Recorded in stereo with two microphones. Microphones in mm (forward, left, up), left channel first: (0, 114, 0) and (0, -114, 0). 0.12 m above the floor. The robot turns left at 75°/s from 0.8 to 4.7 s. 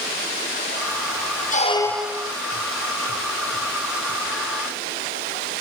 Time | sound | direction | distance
1.5 | a squeak | 35° left | 1.1 m